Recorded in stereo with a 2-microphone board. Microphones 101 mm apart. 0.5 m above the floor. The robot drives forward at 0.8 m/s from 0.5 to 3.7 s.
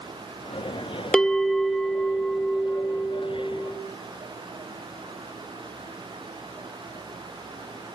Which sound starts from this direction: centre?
A bell, at 1.1 s.